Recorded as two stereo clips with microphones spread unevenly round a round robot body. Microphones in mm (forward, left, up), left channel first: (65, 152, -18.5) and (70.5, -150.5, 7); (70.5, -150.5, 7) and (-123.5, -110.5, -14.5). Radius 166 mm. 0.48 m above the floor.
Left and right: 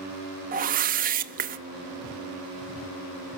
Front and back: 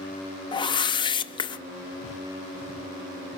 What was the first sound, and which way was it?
A whoosh, 60° right.